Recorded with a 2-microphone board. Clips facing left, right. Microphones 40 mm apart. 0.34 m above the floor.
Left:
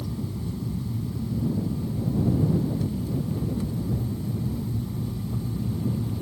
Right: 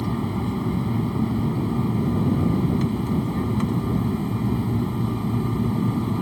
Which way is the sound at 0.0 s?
60° right (ahead or behind).